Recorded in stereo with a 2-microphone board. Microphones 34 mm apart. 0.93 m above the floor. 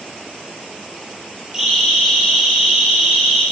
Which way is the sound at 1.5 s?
15° right (ahead or behind).